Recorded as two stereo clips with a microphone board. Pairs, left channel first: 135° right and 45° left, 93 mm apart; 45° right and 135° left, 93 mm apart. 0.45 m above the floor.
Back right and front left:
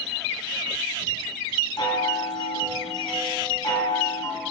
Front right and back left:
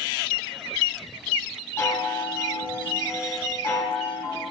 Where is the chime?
105° right, 3 m.